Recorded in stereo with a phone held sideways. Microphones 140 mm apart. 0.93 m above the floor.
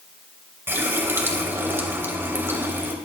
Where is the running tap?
15° right (ahead or behind), 2.5 m.